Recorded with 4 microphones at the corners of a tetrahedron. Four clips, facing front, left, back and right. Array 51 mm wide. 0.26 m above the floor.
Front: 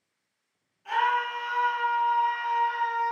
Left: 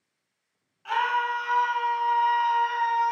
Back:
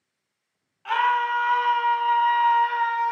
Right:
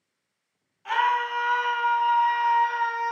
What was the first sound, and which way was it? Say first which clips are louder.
A scream: right 2 dB, back 4 dB; 175° right.